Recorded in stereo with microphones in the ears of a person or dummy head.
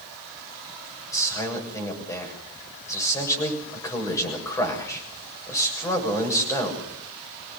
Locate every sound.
1.1 s a man speaking: 20° left (ahead or behind), 7.5 m